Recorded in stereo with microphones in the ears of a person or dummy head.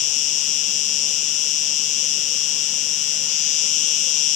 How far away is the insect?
About 0.7 m.